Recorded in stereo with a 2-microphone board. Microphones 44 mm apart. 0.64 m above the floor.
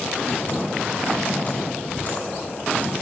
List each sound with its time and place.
0.3 s typing on a keyboard: 35° left (ahead or behind), 6.5 m